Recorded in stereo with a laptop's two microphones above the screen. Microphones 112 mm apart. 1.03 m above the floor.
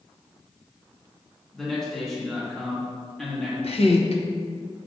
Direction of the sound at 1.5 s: 5° left (ahead or behind).